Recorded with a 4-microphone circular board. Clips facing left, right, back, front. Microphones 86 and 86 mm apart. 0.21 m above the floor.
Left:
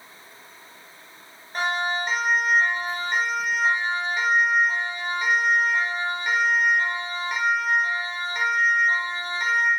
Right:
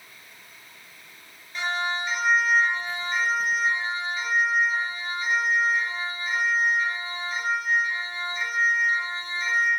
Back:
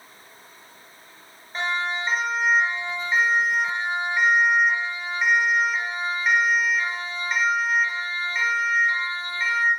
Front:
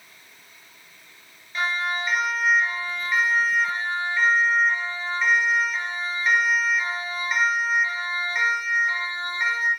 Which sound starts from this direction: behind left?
A siren, at 1.5 s.